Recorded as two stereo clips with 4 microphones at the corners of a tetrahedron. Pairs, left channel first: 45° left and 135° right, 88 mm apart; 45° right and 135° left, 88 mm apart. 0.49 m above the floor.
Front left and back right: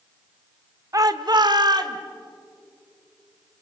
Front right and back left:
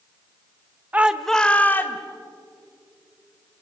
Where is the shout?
165° right, 1.0 m; by 2.0 s 105° right, 1.9 m.